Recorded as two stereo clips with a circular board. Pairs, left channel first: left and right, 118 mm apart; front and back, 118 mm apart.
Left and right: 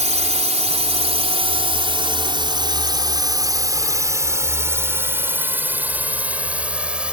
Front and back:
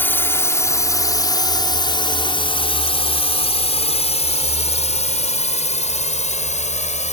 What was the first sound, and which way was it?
A drone, 75° right.